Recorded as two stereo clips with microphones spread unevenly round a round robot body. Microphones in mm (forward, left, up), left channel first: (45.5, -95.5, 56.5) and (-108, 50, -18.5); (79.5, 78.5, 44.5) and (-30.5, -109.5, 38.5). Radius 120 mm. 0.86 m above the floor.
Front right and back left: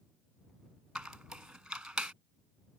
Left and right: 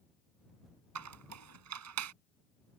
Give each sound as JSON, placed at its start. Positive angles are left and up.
{"t": 0.9, "sound": "a squeak", "azimuth_deg": -135}